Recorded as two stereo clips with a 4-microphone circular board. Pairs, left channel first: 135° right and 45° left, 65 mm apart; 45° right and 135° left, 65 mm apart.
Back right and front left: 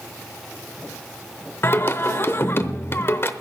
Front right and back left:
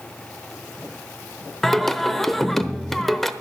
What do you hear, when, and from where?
1.6 s singing: 130° right, 0.8 m